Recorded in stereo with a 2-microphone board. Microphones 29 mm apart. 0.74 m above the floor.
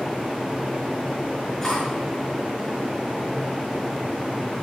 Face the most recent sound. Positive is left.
turn(degrees=20)  # may be behind; listen again after turning